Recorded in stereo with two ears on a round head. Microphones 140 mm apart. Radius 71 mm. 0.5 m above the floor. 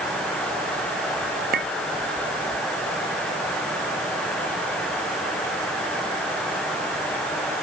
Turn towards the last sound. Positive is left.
turn(degrees=-65)  # may be behind; listen again after turning